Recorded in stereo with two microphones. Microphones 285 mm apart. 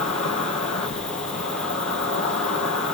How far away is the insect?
About 0.9 m.